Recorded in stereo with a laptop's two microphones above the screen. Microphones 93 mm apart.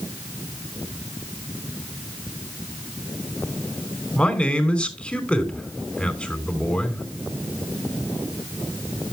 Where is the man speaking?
10° left (ahead or behind), 4 m.